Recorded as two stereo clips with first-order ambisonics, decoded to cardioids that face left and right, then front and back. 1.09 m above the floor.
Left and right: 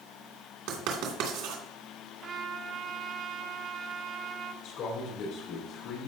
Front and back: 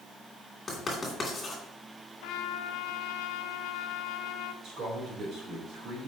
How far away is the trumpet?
About 0.7 m.